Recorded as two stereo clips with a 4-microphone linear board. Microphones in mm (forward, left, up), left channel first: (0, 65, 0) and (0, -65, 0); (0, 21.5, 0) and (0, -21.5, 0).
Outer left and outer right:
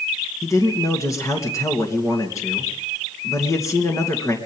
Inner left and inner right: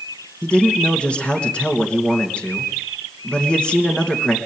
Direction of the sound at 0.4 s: 25° left (ahead or behind).